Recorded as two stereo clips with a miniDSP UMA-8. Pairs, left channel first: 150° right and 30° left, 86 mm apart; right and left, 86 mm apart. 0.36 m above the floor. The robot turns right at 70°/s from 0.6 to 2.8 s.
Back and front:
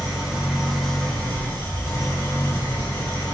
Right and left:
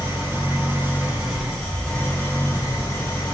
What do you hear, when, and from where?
0.0 s an engine running: 115° left, 1.2 m; by 3.3 s 90° right, 1.2 m